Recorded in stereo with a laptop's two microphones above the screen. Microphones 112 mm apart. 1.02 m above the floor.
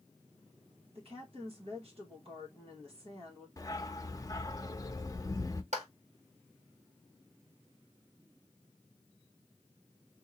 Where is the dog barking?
30° left (ahead or behind), 0.6 m.